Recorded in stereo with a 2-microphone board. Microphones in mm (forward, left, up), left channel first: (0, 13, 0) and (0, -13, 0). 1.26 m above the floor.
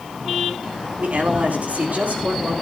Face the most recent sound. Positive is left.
turn(degrees=-85)